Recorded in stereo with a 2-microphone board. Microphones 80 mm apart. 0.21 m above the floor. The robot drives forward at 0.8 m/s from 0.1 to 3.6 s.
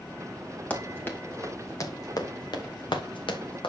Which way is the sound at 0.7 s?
20° left (ahead or behind).